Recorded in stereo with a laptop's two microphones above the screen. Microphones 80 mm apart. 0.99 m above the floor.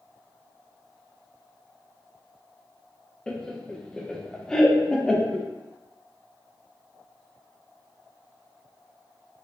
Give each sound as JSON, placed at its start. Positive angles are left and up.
{"t": 3.3, "sound": "laughter", "side_deg": 10, "distance_m": 0.5}